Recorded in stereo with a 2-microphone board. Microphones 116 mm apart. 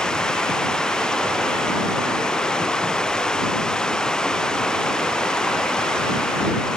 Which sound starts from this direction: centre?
Running water, at 0.0 s.